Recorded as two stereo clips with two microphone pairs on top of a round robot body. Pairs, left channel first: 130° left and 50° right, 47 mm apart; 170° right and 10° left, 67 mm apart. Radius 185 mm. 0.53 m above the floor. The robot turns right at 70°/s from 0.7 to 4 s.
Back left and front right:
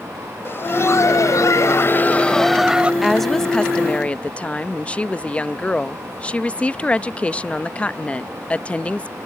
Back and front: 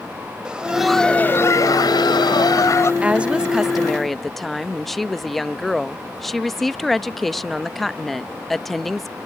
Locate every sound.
0.5 s laughter: 90° left; by 2.9 s 115° right
3.0 s a woman speaking: 25° left; by 9.2 s 95° left